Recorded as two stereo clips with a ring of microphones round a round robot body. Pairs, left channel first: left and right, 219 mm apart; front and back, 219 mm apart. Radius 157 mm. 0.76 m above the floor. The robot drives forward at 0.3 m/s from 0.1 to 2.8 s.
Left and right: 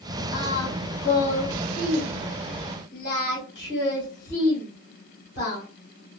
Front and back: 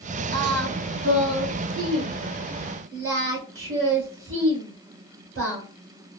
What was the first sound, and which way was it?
Singing, 135° left.